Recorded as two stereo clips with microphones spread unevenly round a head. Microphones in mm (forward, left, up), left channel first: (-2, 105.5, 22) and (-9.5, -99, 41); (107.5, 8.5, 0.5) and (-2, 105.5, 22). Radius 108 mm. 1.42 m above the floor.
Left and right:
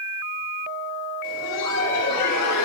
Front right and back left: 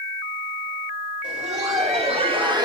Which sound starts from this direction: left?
Laughter, at 1.2 s.